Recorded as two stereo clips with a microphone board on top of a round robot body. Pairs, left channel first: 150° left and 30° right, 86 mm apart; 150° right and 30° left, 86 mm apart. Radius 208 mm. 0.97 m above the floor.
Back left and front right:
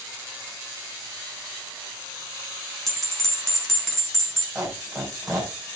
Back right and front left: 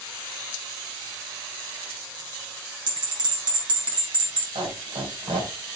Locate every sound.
2.9 s a bell: 65° left, 4 m
4.5 s a squeak: 55° left, 4 m